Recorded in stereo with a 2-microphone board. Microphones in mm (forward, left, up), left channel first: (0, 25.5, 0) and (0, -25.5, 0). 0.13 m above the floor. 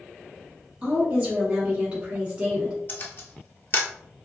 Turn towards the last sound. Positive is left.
turn(degrees=40)  # may be behind; listen again after turning